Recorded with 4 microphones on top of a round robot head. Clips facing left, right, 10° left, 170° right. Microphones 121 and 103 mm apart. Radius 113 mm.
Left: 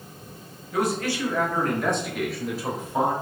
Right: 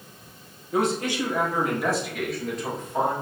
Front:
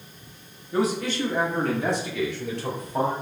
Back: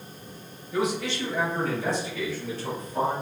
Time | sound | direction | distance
0.7 | a man speaking | 40° right | 1.2 m